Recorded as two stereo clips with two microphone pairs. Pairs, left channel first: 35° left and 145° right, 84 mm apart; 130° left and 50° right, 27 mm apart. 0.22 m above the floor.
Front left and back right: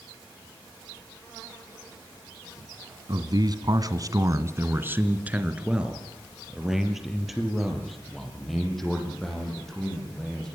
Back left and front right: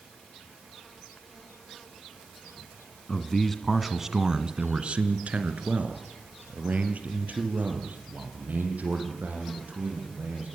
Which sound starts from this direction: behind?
A man speaking, at 3.1 s.